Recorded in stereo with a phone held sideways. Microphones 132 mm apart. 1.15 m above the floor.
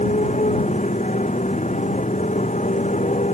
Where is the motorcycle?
65° left (ahead or behind).